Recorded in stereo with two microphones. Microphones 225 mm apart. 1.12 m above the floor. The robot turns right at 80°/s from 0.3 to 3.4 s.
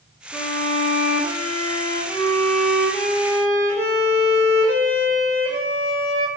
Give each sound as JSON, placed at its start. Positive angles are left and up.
{"t": 0.3, "sound": "a violin", "azimuth_deg": 5, "distance_m": 1.8}